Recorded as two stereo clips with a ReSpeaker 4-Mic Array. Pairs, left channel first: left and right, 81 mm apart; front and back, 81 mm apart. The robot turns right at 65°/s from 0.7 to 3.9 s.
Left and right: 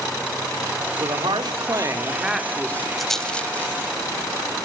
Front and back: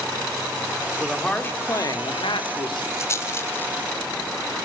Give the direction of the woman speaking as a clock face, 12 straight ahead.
3 o'clock.